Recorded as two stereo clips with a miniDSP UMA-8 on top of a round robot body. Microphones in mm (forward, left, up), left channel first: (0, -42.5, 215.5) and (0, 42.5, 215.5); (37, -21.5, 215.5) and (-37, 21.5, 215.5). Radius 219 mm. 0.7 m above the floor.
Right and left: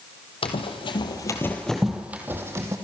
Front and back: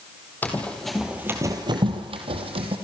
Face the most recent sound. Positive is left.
turn(degrees=150)